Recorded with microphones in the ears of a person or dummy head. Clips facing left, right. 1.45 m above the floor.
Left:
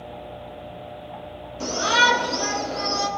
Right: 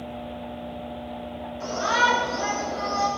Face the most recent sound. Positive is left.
turn(degrees=40)  # may be behind; listen again after turning